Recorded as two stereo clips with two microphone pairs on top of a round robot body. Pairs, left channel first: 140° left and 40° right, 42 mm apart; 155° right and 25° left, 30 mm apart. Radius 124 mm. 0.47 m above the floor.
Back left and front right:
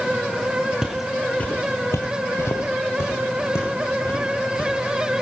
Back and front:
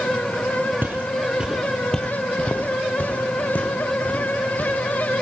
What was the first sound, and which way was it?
Footsteps, 35° left.